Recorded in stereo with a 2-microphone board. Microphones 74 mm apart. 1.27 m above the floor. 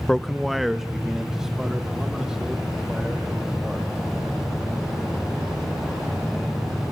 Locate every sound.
0.1 s a man speaking: 10° left (ahead or behind), 0.7 m; by 3.9 s 10° right (ahead or behind), 6 m